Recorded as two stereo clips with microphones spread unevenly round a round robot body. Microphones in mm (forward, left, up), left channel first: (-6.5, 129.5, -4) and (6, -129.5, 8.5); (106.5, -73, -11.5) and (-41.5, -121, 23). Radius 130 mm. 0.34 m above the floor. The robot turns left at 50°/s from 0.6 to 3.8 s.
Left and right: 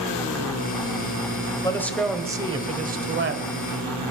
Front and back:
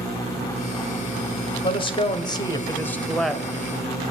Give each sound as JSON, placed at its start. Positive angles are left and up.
{"t": 1.6, "sound": "a man speaking", "azimuth_deg": 25, "distance_m": 1.4}